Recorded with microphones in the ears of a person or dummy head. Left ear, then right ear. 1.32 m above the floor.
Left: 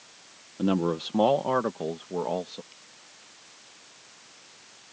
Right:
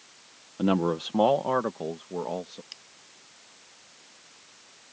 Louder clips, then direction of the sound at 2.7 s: Right 7 dB; 75° right (ahead or behind).